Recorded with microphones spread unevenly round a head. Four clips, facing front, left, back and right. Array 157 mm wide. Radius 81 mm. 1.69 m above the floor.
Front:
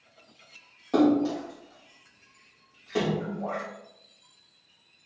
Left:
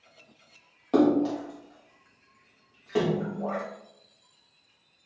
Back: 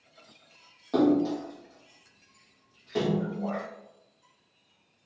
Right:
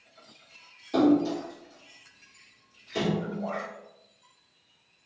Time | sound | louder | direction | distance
0.9 | a splash | even, front 1 dB | 65° left | 1.5 m